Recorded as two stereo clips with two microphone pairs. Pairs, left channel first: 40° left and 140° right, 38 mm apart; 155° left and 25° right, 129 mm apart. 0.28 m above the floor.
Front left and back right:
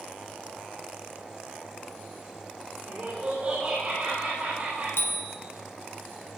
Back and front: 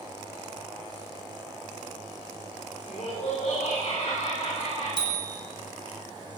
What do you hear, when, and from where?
2.8 s laughter: 170° left, 7 m; by 4.9 s straight behind, 10 m
5.0 s a bicycle bell: 25° left, 2.5 m